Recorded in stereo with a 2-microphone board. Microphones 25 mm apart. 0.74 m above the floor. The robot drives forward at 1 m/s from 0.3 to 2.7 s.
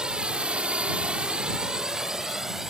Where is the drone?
40° right (ahead or behind); by 2.7 s 15° right (ahead or behind).